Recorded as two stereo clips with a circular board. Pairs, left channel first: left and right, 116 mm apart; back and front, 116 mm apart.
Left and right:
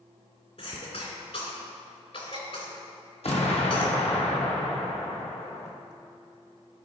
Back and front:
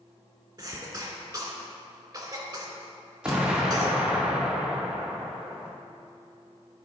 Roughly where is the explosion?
Left.